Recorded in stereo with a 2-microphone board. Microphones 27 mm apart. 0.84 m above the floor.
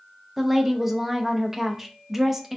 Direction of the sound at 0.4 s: 15° right (ahead or behind).